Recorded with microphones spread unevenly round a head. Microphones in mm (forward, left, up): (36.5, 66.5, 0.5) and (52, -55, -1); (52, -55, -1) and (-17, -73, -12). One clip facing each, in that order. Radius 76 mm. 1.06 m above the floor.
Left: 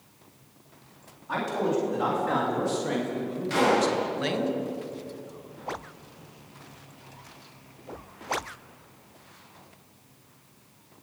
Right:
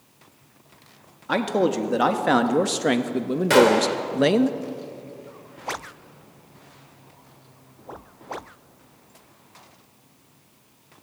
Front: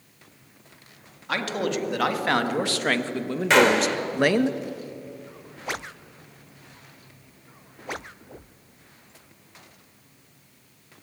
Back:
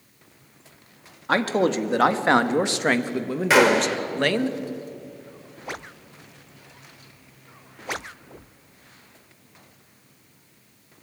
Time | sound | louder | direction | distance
1.3 | a man speaking | right 5 dB, back 6 dB | 120° right | 2.5 m
3.5 | a gunshot | right 6 dB, back 1 dB | 80° right | 3 m